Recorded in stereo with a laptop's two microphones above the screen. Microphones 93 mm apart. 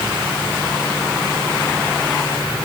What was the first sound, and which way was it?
Only background noise.